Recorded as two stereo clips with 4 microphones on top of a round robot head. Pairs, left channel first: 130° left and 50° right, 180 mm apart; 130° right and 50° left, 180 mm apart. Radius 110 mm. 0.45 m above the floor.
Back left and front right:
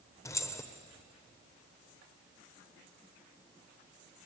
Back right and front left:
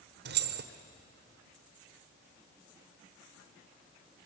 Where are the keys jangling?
55° left, 1.2 m.